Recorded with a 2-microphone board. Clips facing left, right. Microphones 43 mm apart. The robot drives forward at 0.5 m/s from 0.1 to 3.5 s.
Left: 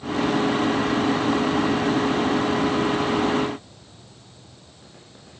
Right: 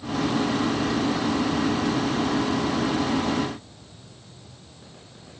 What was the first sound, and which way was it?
Only background noise.